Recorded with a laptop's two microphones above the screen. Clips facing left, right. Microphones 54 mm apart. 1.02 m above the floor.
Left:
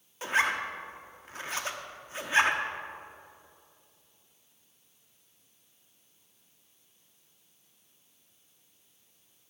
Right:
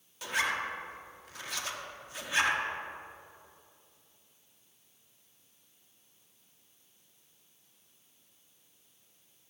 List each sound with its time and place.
0.2 s a zipper: 35° left (ahead or behind), 0.9 m